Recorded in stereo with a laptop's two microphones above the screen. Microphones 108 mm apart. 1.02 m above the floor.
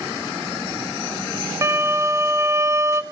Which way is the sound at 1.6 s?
25° right (ahead or behind).